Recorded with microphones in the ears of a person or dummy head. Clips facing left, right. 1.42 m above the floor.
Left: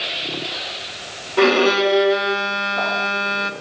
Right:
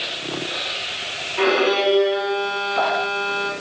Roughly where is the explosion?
No explosion in this recording.